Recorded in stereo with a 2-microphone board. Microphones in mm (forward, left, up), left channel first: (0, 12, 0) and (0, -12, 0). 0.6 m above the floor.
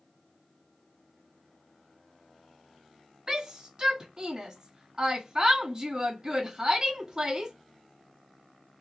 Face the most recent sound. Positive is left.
turn(degrees=-25)  # may be behind; listen again after turning